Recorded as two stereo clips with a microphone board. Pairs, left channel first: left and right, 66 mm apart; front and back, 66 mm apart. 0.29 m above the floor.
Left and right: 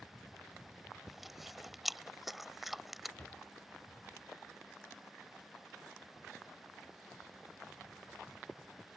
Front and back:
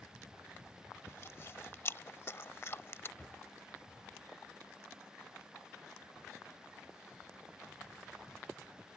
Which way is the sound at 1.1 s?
5° right.